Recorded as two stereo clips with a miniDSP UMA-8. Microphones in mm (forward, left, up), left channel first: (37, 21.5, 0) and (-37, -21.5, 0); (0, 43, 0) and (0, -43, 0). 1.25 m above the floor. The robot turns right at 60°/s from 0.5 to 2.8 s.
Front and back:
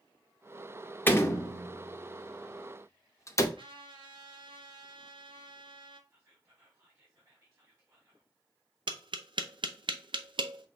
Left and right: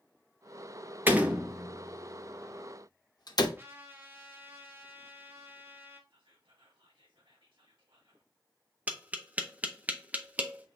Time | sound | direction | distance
1.1 | a door slam | 30° right | 0.7 m
3.6 | a trumpet | 150° right | 1.0 m
6.1 | whispering | 100° right | 3 m
8.9 | tapping | 160° right | 0.6 m